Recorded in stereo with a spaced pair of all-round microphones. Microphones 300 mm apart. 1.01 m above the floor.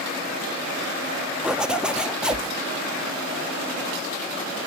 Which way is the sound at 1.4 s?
5° right (ahead or behind).